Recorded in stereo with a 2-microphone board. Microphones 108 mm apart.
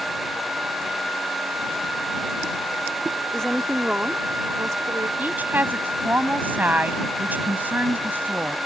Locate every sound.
3.3 s a woman speaking: 5° left (ahead or behind); by 5.1 s 40° right (ahead or behind)
5.2 s a woman speaking: 15° right (ahead or behind)